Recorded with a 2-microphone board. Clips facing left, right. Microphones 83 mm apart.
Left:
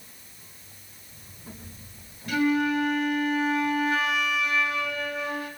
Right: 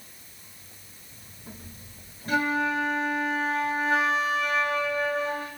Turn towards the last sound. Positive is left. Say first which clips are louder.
# left 2 dB
turn(degrees=-35)  # may be behind; listen again after turning